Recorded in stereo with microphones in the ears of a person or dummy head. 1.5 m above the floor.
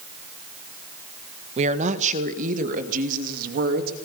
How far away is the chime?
I don't hear a chime.